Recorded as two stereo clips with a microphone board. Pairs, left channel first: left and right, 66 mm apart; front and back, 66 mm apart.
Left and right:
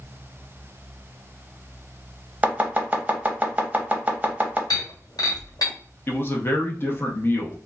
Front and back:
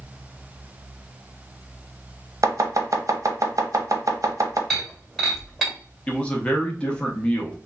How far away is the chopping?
About 0.6 m.